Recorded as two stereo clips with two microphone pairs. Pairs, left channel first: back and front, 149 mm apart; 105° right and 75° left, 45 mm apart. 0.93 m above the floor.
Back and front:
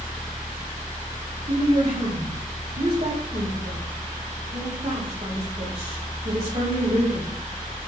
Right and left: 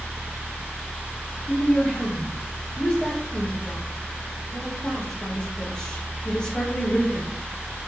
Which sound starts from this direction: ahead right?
A woman speaking, at 1.5 s.